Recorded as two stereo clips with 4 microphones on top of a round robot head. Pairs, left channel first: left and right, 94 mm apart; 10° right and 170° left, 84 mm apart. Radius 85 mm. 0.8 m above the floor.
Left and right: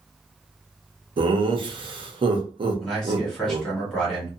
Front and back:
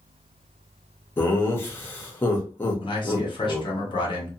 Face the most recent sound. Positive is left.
turn(degrees=5)